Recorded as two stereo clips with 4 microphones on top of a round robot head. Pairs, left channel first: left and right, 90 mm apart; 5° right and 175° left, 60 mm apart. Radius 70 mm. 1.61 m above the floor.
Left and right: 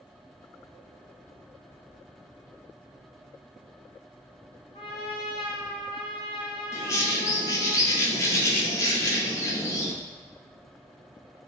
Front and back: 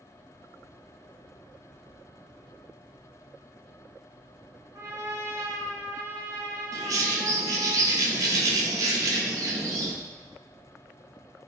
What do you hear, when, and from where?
4.7 s a trumpet: 125° left, 0.7 m
6.7 s a bird: 150° left, 0.5 m